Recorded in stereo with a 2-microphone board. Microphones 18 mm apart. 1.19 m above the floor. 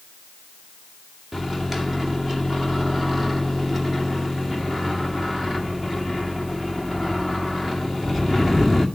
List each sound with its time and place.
1.3 s a microwave: 15° right (ahead or behind), 2.0 m